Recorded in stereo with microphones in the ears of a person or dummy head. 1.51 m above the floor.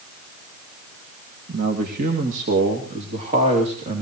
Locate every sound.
1.5 s a man speaking: 50° right (ahead or behind), 2 m; by 4.0 s 30° right (ahead or behind), 3.5 m